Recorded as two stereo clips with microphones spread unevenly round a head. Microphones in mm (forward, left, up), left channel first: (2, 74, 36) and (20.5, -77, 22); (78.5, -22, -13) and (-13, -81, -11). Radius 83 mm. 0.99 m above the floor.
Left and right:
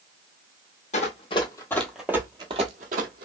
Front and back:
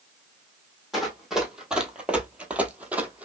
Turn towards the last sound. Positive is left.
turn(degrees=-75)